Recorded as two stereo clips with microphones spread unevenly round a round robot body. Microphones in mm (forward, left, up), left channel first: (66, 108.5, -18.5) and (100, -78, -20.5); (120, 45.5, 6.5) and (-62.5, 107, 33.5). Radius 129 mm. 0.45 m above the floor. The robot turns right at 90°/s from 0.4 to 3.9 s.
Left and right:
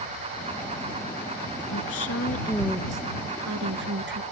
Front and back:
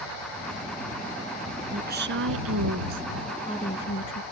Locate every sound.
1.7 s a woman speaking: 105° left; by 4.2 s 55° right